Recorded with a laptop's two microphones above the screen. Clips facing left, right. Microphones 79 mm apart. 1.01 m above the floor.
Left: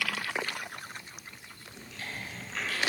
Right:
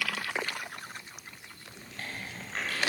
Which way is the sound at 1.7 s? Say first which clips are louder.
Even; 50° right (ahead or behind).